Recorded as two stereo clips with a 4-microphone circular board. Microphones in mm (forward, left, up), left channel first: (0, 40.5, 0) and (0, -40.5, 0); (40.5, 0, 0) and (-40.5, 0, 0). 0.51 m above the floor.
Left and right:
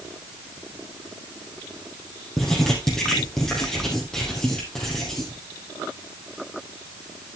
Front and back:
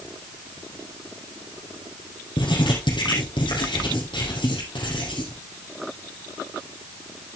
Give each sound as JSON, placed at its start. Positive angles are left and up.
{"t": 2.4, "sound": "writing", "azimuth_deg": 5, "distance_m": 4.0}